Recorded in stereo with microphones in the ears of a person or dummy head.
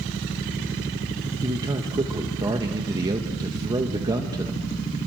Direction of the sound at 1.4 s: 25° right (ahead or behind).